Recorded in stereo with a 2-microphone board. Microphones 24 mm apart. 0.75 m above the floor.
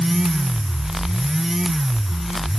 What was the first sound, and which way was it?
Only background noise.